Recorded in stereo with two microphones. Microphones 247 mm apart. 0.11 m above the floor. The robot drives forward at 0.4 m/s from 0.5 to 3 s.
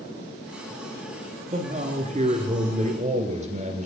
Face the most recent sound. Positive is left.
turn(degrees=-30)  # may be behind; listen again after turning